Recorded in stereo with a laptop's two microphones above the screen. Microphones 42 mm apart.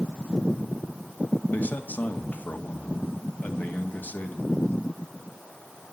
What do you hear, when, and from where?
1.5 s a man speaking: 45° left (ahead or behind), 2 m